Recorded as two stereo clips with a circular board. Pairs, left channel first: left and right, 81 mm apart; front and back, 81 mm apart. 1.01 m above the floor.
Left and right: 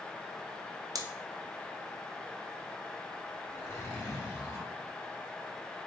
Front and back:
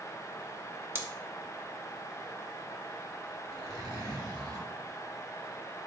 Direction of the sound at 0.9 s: 120° right.